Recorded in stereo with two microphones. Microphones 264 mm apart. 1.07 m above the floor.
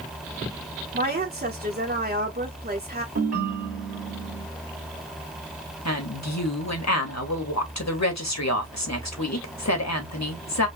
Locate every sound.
0.9 s a woman speaking: 35° right (ahead or behind), 1.1 m
3.1 s a ringtone: 65° right (ahead or behind), 1.8 m
5.8 s a woman speaking: 85° left, 1.5 m